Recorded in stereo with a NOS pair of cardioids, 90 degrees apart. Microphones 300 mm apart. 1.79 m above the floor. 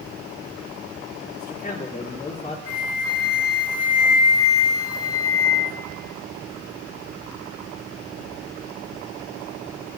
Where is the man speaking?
30° left, 5 m; by 2.6 s 20° left, 6 m.